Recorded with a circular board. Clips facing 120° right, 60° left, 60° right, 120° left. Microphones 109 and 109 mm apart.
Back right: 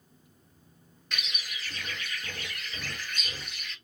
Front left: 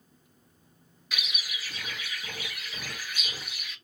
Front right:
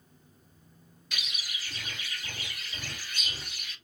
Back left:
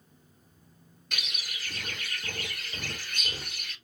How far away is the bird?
About 1.1 m.